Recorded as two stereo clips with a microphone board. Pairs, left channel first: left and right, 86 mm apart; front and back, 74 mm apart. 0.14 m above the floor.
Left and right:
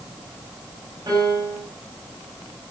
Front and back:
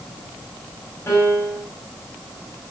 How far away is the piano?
About 10 m.